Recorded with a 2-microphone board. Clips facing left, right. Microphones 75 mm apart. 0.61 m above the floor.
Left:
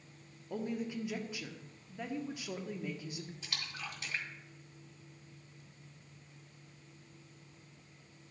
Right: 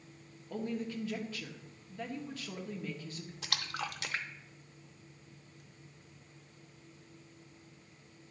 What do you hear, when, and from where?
0.5 s a woman speaking: 15° left (ahead or behind), 1.0 m
3.4 s a splash: 80° right, 0.6 m